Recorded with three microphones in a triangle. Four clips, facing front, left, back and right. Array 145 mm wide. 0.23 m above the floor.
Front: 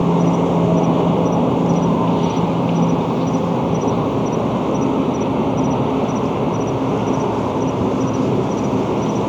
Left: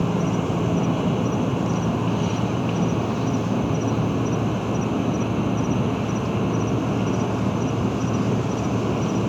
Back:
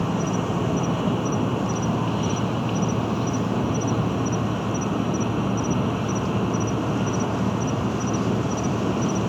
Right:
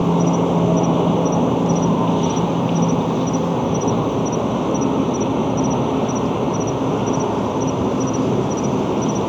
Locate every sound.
0.0 s an insect: 40° right